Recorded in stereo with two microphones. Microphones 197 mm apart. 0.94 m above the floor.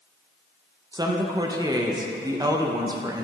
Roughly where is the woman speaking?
Centre.